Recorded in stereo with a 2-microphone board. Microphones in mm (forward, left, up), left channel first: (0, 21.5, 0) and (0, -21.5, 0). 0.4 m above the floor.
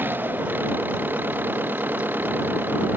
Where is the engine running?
45° right (ahead or behind).